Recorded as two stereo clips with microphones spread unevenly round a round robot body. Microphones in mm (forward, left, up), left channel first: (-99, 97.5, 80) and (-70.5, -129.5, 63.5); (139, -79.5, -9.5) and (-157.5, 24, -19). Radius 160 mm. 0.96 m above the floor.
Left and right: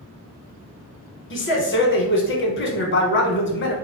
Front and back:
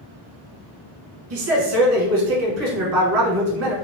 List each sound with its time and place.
1.3 s a man speaking: 125° left, 1.1 m